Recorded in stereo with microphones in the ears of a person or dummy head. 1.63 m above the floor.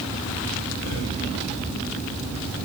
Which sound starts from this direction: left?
Breathing, at 0.8 s.